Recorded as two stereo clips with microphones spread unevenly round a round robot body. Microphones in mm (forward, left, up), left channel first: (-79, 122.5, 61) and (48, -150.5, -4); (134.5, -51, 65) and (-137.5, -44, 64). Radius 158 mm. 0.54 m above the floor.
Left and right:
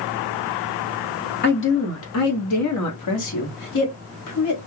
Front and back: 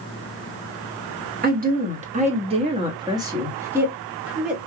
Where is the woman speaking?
165° left, 1.2 m; by 4.6 s 90° left, 2.0 m.